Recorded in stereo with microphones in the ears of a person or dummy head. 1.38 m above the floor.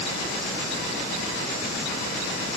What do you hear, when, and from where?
Only background noise.